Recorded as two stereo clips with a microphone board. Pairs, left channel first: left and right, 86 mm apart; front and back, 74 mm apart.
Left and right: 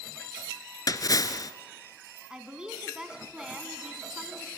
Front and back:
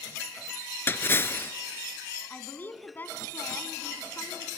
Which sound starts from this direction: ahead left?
A splash, at 0.9 s.